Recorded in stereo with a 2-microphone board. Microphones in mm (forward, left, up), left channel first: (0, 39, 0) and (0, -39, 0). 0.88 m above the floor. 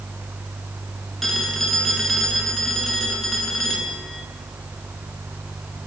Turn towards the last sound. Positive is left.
turn(degrees=5)  # may be behind; listen again after turning